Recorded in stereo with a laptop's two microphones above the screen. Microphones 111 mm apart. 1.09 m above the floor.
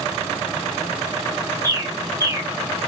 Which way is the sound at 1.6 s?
30° right (ahead or behind).